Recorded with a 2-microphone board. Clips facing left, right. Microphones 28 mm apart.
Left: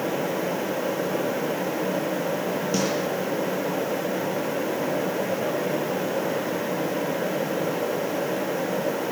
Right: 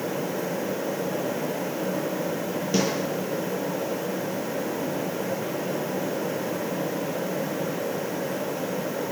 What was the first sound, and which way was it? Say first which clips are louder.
A snare drum: right 2 dB; 10° right (ahead or behind).